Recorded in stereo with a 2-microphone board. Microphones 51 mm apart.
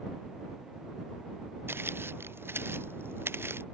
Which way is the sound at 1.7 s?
45° right (ahead or behind).